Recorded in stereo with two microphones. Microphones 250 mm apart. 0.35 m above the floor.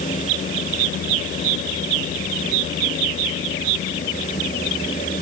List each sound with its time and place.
Only background noise.